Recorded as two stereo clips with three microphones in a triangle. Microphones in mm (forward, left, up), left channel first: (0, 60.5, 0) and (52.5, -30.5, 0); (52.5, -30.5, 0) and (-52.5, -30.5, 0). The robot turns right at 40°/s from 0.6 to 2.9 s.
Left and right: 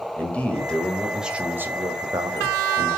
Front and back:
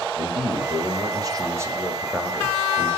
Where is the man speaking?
165° right, 1.7 m; by 2.9 s 70° right, 1.7 m.